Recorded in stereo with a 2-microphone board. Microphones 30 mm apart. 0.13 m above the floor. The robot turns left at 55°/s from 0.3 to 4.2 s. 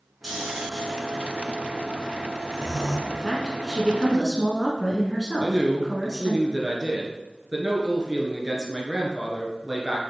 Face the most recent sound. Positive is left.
turn(degrees=-25)  # may be behind; listen again after turning